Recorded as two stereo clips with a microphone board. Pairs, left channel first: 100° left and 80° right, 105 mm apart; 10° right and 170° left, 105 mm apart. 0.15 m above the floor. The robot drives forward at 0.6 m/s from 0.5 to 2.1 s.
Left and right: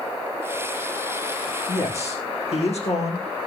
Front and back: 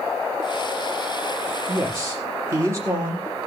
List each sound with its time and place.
1.7 s a man speaking: 105° left, 5.5 m